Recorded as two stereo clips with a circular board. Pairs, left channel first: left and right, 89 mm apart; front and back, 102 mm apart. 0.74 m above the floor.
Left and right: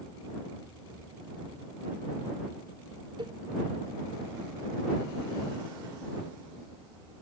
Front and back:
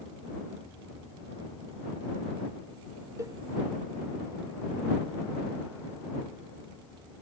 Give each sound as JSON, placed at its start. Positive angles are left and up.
{"t": 3.2, "sound": "a cowbell", "azimuth_deg": -120}